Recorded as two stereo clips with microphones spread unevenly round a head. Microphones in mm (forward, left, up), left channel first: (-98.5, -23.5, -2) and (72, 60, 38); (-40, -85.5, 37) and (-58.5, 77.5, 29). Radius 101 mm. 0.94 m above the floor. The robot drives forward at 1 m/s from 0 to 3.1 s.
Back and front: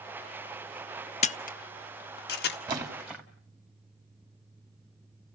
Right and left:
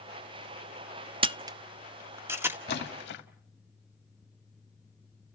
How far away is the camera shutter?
About 0.6 m.